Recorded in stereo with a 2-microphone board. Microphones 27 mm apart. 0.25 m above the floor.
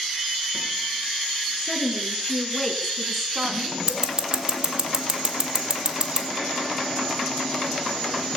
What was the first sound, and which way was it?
A woman speaking, 35° left (ahead or behind).